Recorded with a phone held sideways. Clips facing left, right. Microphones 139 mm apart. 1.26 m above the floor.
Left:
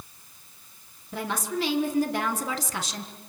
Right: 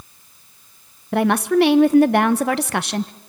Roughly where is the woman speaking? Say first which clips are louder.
Right 14 dB; right.